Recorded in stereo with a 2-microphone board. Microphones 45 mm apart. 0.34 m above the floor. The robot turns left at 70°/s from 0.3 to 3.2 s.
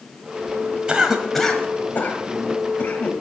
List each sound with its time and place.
0.9 s a cough: 20° right (ahead or behind), 1.4 m; by 3.1 s 40° left (ahead or behind), 1.4 m